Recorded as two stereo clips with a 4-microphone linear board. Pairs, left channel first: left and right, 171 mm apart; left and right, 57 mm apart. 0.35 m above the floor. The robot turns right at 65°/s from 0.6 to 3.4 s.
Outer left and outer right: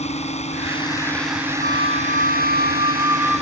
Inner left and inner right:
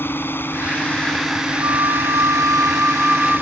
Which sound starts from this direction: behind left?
A drone, at 0.0 s.